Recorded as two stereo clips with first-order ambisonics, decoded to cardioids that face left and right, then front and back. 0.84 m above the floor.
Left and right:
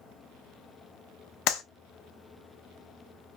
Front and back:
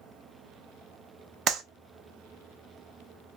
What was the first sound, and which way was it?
A clap, 125° left.